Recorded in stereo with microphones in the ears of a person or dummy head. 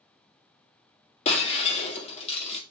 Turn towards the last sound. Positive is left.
turn(degrees=35)  # may be behind; listen again after turning